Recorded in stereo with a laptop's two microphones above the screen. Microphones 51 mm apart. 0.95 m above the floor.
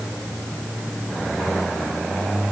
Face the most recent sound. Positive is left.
No sound to turn to.